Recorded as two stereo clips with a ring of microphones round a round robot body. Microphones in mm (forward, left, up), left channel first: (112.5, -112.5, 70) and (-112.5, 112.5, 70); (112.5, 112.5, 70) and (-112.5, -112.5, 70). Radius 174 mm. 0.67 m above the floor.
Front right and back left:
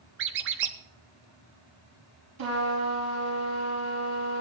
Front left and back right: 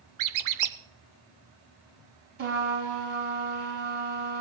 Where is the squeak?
170° right, 0.8 m.